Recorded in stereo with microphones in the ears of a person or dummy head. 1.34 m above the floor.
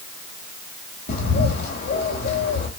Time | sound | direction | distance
1.1 | a bird | 60° left (ahead or behind) | 3.5 m